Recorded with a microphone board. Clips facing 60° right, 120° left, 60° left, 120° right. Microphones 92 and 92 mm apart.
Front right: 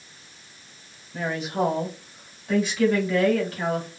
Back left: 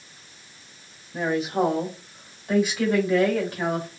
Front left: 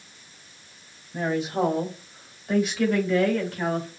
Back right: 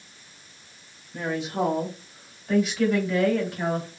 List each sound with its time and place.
1.1 s a woman speaking: 40° left, 1.5 m; by 3.9 s 170° right, 1.6 m